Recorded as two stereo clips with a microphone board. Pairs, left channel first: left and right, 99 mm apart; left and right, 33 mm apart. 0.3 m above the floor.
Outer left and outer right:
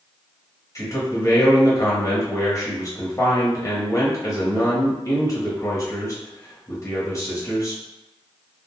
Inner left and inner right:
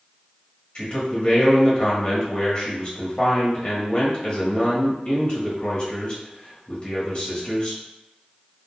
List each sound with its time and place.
0.8 s a man speaking: 35° left (ahead or behind), 1.1 m